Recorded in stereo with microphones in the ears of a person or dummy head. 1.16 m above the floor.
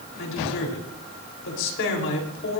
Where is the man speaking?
70° left (ahead or behind), 3.5 m.